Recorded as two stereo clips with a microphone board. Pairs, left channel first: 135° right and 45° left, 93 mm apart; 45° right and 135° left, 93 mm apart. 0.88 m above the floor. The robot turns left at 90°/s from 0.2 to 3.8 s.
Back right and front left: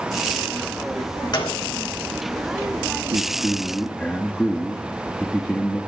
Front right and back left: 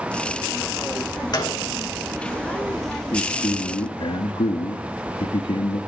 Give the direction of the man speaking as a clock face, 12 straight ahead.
11 o'clock.